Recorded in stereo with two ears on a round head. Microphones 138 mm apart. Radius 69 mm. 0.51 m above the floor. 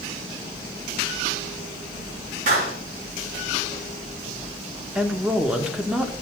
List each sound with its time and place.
2.5 s a clap: 55° right (ahead or behind), 4.5 m
5.0 s a woman speaking: 5° right (ahead or behind), 0.9 m